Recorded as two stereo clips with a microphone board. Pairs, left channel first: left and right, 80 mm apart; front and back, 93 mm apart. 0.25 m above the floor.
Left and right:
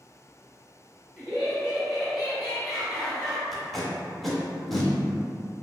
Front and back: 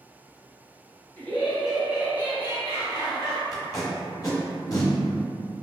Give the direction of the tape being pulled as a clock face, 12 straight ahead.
12 o'clock.